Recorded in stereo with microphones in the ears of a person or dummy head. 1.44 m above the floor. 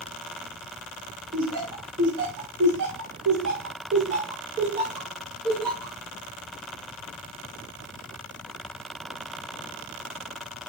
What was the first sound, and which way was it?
Laughter, 55° right (ahead or behind).